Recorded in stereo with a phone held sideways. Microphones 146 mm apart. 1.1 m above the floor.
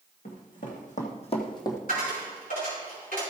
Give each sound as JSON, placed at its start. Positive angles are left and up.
{"t": 0.2, "sound": "running footsteps", "side_deg": 70, "distance_m": 3.0}
{"t": 1.9, "sound": "a dropped coin", "side_deg": 80, "distance_m": 4.5}